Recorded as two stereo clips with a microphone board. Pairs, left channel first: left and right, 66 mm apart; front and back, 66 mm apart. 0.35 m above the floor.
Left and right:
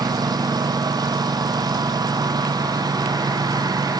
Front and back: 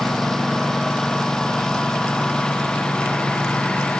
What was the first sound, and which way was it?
A lawn mower, 85° right.